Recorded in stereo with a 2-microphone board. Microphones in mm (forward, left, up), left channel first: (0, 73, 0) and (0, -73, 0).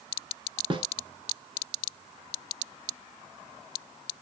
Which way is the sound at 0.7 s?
35° right (ahead or behind).